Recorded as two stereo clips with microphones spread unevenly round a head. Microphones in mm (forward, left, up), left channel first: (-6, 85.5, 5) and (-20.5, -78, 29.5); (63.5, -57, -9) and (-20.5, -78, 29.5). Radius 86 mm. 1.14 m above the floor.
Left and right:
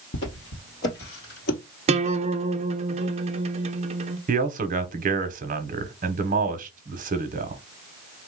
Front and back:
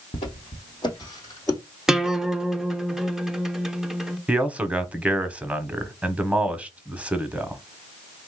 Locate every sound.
0.1 s footsteps: 65° left, 1.7 m; by 1.6 s 105° left, 1.7 m
1.9 s a guitar: 55° right, 0.5 m
4.3 s a man speaking: 70° right, 0.9 m